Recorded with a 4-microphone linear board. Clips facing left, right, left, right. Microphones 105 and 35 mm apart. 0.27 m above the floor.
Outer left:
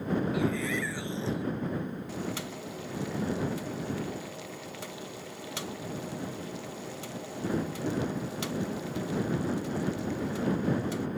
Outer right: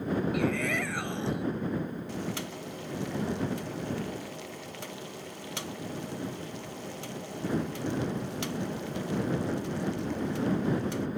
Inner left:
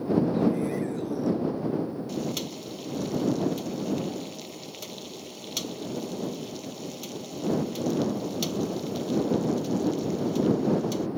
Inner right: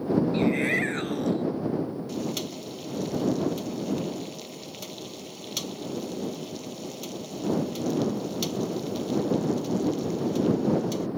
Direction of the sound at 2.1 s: Centre (ahead or behind).